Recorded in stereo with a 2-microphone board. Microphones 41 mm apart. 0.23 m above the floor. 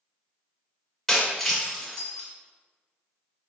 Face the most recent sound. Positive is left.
turn(degrees=10)  # may be behind; listen again after turning